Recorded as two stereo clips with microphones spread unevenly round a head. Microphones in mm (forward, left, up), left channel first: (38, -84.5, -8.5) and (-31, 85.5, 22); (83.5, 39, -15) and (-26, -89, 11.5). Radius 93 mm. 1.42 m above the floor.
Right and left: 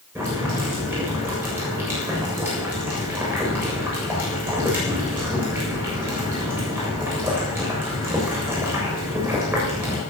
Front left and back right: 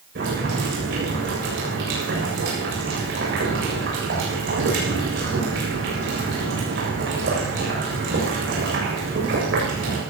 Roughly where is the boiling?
Behind.